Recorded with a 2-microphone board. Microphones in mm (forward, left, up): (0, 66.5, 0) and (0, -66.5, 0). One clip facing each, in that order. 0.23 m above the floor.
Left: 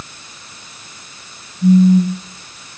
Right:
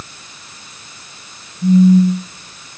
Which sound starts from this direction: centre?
A phone buzzing, at 1.6 s.